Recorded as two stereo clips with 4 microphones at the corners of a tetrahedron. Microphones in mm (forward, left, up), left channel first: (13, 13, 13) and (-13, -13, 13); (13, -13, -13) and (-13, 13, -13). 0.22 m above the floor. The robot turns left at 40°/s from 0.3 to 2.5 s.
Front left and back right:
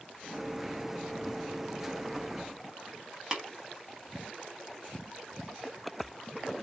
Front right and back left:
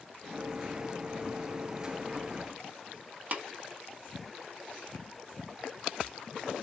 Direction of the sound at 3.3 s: 160° left.